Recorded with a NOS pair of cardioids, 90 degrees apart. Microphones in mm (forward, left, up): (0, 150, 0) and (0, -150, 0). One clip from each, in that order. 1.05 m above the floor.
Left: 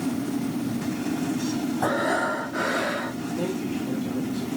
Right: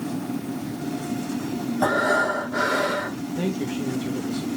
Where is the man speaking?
60° right, 1.5 m.